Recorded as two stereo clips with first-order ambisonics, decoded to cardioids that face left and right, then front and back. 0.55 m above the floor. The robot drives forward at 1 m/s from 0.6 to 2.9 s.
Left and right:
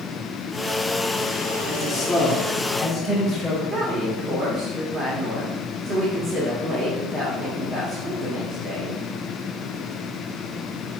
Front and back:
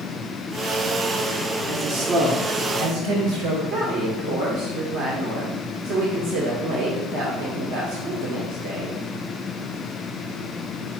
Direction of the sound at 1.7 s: 175° left.